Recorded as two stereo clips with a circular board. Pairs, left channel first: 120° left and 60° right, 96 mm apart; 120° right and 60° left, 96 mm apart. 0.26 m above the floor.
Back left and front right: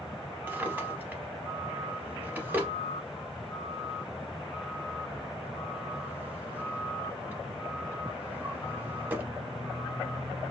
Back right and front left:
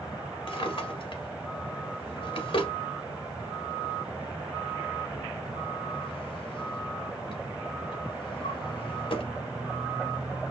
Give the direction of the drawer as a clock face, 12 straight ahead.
4 o'clock.